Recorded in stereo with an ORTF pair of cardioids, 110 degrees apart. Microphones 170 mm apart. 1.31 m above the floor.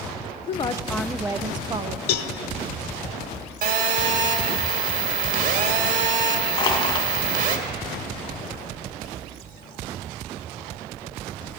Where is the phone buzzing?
55° right, 1.6 m.